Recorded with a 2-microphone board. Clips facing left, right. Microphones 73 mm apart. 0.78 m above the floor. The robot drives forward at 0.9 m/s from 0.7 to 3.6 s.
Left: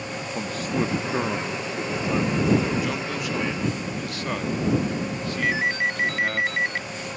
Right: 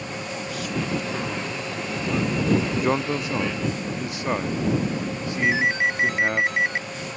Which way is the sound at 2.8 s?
35° right (ahead or behind).